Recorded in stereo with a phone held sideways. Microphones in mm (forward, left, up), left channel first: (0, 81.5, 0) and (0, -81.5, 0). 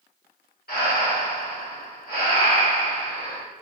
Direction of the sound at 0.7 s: 70° left (ahead or behind).